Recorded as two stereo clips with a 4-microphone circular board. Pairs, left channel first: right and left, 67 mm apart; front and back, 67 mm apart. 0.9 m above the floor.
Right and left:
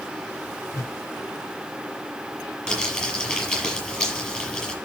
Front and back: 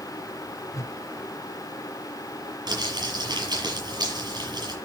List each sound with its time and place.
0.7 s a whoosh: 45° right, 0.5 m
2.7 s crumpling: 165° right, 7 m